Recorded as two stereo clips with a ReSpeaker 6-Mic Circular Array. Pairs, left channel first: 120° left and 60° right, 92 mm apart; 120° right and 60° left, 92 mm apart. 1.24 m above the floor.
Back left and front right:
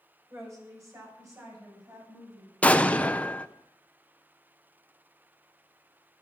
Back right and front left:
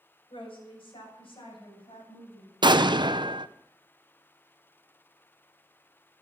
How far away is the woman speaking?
About 6 m.